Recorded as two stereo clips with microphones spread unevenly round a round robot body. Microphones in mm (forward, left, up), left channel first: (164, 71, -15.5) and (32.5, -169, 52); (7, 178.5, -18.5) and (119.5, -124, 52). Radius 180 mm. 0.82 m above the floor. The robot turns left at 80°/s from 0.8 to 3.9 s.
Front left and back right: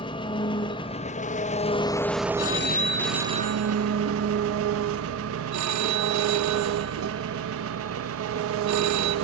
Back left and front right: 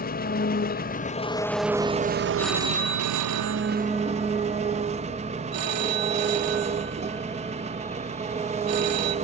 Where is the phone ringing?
30° left, 1.3 m; by 9.2 s 90° right, 1.3 m.